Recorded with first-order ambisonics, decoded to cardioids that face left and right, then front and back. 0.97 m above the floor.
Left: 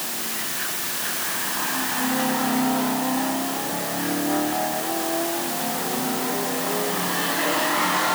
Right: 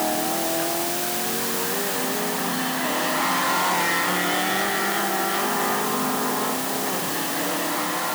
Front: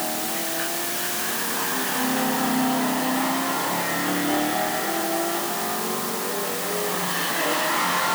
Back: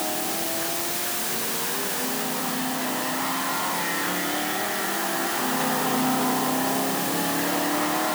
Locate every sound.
Only background noise.